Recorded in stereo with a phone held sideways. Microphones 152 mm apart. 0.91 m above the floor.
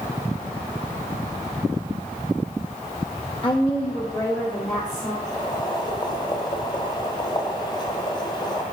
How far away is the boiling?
About 1.4 m.